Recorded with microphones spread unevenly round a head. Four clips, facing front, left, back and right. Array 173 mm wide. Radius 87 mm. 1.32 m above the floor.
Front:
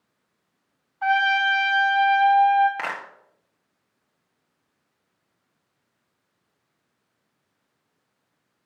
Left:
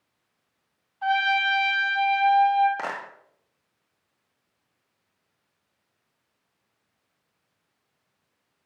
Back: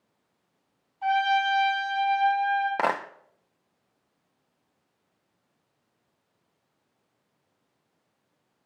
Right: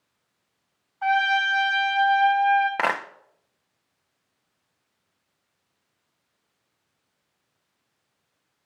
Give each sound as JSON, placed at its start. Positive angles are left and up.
{"t": 1.0, "sound": "a trumpet", "azimuth_deg": -5, "distance_m": 3.0}
{"t": 2.8, "sound": "a clap", "azimuth_deg": -155, "distance_m": 0.6}